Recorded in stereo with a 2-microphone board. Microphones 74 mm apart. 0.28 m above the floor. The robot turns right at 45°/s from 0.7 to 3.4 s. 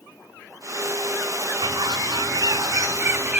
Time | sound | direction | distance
1.6 | a bird | 100° right | 0.6 m